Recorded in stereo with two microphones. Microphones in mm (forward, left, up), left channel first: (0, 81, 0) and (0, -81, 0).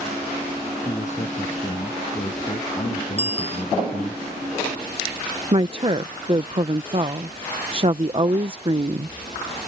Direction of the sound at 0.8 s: 45° left (ahead or behind).